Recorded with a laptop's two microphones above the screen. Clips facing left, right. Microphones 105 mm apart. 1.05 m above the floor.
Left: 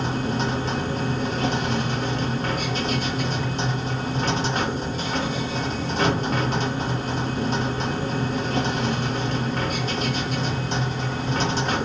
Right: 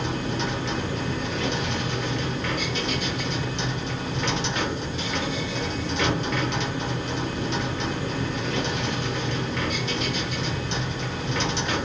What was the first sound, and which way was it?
A machine running, 40° left (ahead or behind).